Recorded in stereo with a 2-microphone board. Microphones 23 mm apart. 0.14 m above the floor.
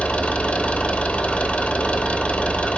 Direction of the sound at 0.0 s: 75° left (ahead or behind).